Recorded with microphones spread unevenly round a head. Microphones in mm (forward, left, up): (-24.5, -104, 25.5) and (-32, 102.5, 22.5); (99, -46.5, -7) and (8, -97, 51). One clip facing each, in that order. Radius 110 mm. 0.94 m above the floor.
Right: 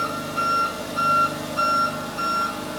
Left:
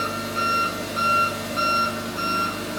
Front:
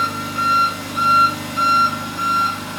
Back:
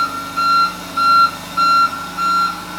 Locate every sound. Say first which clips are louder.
0.0 s an engine running: even, back 2 dB; 30° left, 1.4 m